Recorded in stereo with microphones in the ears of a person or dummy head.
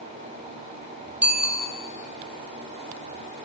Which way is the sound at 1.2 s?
10° right (ahead or behind).